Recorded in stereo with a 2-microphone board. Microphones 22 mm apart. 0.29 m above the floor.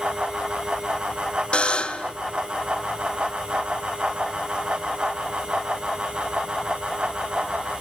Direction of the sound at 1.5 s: 55° left (ahead or behind).